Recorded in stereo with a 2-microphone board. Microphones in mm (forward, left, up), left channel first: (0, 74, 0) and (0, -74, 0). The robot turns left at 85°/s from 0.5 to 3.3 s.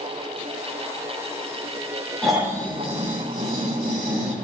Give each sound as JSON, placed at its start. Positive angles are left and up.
{"t": 2.2, "sound": "snoring", "azimuth_deg": 5, "distance_m": 3.0}